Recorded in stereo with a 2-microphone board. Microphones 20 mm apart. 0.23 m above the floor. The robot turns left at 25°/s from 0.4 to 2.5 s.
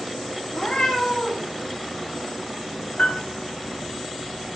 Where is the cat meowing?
70° left (ahead or behind), 1.9 m; by 1.5 s 85° left, 1.9 m.